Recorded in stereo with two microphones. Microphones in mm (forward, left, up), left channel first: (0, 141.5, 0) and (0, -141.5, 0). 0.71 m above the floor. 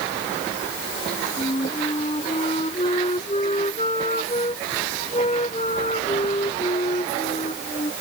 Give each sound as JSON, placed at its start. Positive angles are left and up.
{"t": 1.4, "sound": "a flute", "side_deg": 25}